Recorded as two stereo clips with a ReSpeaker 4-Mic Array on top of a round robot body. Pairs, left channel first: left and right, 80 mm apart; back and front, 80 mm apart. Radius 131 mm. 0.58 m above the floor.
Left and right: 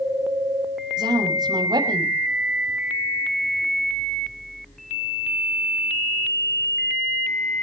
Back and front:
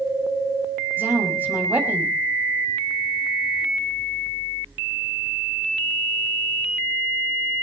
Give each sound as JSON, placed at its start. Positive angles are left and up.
{"t": 1.0, "sound": "a woman speaking", "azimuth_deg": -65, "distance_m": 6.0}